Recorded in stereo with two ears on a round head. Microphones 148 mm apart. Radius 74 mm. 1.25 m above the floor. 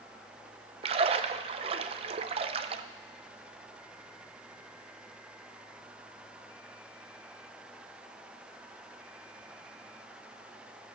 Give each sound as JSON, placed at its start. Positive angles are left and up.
{"t": 0.8, "sound": "a splash", "side_deg": -35, "distance_m": 0.5}